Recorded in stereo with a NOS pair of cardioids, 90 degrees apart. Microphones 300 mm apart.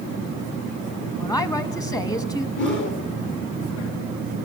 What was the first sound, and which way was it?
A woman speaking, 10° left.